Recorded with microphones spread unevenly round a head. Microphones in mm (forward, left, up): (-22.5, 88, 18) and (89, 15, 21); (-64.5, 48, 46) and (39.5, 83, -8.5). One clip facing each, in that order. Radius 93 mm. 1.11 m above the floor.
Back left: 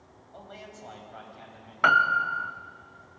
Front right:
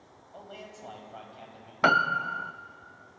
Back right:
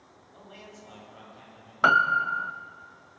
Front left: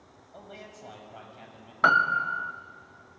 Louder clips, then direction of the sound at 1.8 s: Back left 1 dB, back right 1 dB; 35° right.